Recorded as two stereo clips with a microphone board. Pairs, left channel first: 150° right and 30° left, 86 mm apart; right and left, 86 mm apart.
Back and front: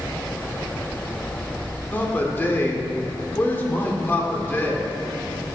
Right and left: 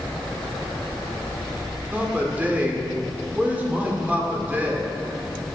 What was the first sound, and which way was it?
A man speaking, 155° left.